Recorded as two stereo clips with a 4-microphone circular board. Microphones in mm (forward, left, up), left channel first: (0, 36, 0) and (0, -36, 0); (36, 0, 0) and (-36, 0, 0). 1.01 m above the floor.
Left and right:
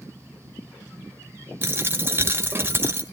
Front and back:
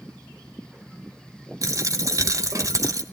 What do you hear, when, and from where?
1.6 s a dropped coin: 145° right, 1.3 m